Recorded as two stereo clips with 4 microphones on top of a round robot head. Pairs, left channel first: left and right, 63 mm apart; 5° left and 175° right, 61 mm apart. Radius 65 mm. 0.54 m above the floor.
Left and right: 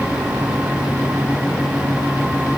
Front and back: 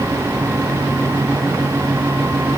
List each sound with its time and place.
Only background noise.